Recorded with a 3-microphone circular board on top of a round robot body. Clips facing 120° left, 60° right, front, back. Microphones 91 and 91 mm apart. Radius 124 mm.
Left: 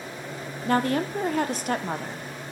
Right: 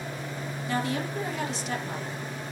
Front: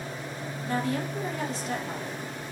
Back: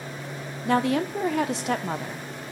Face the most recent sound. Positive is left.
turn(degrees=160)